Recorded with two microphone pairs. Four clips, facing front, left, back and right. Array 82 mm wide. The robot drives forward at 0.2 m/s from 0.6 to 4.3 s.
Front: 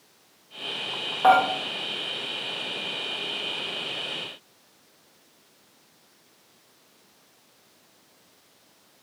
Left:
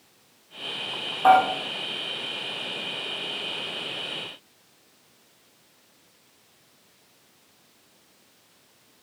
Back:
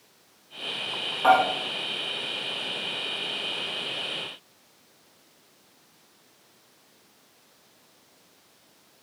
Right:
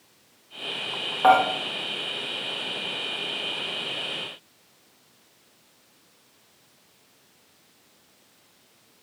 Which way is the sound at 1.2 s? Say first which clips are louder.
Left 1 dB, front 1 dB; 60° right.